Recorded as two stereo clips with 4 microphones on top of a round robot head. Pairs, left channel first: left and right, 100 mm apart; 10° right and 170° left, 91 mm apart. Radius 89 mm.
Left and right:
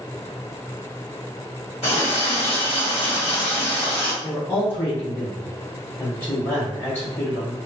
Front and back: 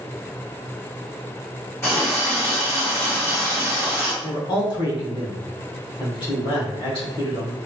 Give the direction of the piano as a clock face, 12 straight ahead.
I don't hear a piano.